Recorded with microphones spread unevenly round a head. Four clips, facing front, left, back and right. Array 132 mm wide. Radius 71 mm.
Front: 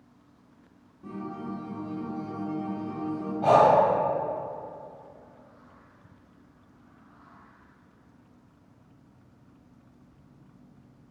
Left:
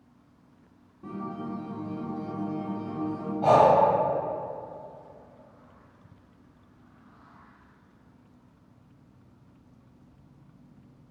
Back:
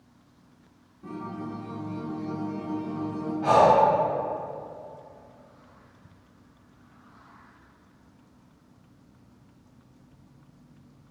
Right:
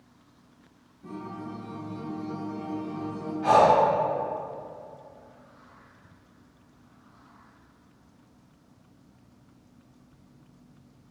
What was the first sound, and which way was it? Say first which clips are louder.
A guitar: left 2 dB, back 1 dB; 115° left.